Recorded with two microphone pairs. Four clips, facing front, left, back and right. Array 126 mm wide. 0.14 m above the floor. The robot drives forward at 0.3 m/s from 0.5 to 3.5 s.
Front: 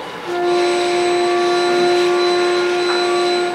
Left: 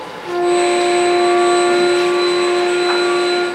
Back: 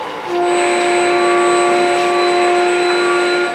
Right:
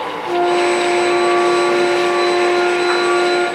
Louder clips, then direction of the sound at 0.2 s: Left 1 dB, back 2 dB; 75° left.